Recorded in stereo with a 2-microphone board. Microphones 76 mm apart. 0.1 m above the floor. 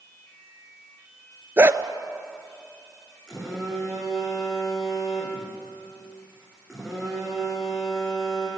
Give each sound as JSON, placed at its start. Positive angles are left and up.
{"t": 1.6, "sound": "a dog barking", "side_deg": -35, "distance_m": 0.8}
{"t": 3.3, "sound": "a phone buzzing", "side_deg": 0, "distance_m": 7.0}